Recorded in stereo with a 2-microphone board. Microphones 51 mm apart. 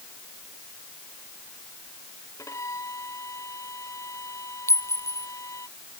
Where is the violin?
80° left.